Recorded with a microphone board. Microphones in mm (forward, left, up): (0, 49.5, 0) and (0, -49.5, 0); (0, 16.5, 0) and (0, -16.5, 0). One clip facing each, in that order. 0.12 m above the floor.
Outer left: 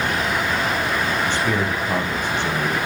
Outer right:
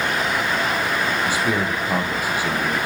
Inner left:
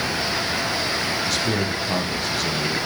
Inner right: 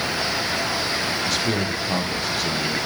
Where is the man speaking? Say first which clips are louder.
Even, even; 5° right (ahead or behind), 2.5 m.